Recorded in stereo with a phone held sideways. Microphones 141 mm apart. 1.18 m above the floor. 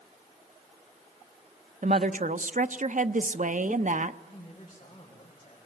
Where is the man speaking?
35° left (ahead or behind), 5 m.